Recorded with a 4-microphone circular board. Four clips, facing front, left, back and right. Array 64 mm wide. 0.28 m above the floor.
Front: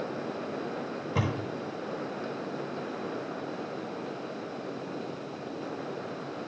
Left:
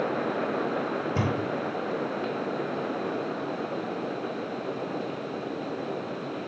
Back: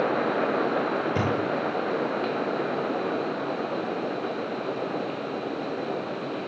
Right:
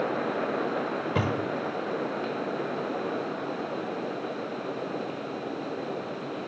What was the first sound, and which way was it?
A thud, 95° right.